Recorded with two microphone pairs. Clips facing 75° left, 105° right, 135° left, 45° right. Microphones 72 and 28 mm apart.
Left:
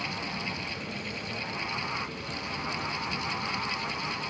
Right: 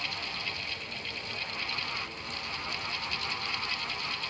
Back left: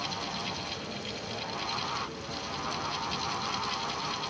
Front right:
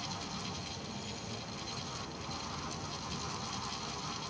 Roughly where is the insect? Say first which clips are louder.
Left 3 dB, back left 7 dB; left.